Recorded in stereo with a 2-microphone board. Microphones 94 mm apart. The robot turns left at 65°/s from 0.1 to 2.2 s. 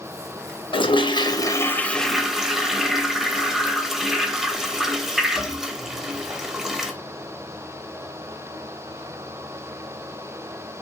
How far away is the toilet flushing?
About 0.5 m.